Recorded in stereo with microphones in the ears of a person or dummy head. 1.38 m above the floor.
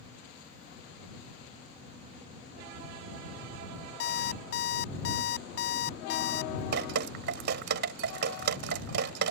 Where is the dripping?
55° right (ahead or behind).